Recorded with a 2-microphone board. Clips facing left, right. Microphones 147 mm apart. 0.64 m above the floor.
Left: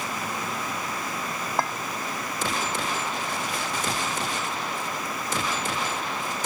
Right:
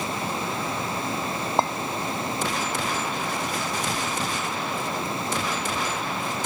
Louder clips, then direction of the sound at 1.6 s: Right 4 dB; 25° right (ahead or behind).